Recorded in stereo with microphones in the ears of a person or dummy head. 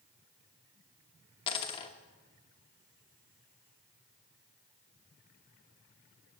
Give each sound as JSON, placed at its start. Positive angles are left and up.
{"t": 1.5, "sound": "a dropped coin", "side_deg": 25, "distance_m": 1.1}